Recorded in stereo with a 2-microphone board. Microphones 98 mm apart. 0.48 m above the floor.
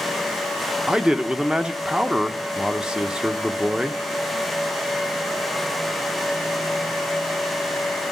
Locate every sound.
0.9 s a man speaking: 10° right (ahead or behind), 0.8 m